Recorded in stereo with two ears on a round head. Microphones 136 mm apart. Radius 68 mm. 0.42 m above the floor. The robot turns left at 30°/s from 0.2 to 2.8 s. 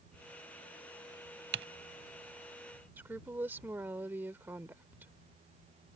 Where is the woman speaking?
15° right (ahead or behind).